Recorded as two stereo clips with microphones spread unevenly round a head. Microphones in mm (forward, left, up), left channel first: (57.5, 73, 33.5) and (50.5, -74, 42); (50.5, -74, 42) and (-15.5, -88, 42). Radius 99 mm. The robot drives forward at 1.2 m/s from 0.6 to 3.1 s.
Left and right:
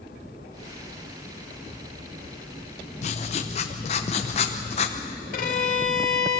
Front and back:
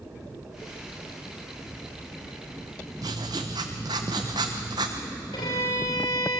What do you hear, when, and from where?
3.0 s writing: 140° left, 0.6 m; by 5.0 s 145° left, 0.7 m
5.3 s a violin: 60° left, 2.5 m